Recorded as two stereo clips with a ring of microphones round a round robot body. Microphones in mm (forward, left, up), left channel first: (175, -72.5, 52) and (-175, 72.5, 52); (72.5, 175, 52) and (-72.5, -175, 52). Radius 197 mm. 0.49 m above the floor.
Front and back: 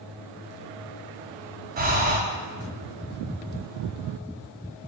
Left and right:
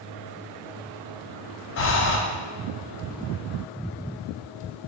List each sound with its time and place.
1.8 s breathing: 105° left, 0.5 m